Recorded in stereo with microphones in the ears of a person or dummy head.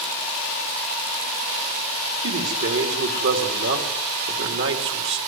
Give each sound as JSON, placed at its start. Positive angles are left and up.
{"t": 2.2, "sound": "a man speaking", "side_deg": -70, "distance_m": 3.5}